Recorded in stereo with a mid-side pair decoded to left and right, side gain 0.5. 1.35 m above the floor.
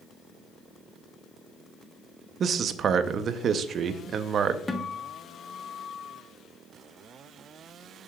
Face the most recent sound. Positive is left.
turn(degrees=20)